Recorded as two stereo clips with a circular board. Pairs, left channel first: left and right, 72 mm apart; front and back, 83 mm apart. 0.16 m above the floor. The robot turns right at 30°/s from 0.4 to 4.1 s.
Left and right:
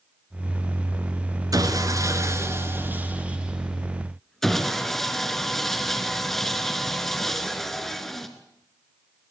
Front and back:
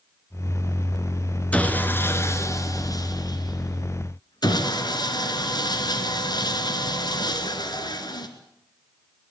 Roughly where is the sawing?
Right.